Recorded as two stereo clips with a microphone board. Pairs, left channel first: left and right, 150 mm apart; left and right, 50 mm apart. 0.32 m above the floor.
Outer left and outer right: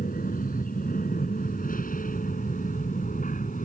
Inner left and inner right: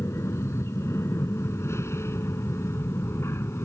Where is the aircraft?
70° left (ahead or behind); by 3.7 s 60° left (ahead or behind).